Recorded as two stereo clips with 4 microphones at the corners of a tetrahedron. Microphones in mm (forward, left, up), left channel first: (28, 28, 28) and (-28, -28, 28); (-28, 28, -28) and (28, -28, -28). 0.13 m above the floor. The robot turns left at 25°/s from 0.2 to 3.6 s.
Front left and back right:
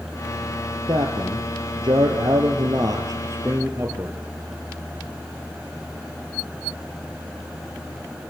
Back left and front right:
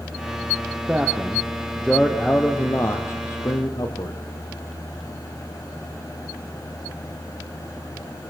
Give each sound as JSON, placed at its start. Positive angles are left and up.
{"t": 0.9, "sound": "a man speaking", "azimuth_deg": -120, "distance_m": 3.0}